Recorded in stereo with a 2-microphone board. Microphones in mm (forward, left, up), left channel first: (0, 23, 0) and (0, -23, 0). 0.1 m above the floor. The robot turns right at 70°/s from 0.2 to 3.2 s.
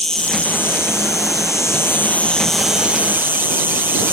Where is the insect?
10° left; by 4.1 s 140° right.